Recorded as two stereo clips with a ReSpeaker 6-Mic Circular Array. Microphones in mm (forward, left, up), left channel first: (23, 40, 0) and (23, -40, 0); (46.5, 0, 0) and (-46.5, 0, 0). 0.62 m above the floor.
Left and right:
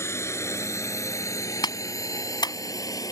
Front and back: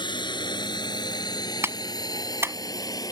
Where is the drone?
35° left; by 3.1 s 50° left.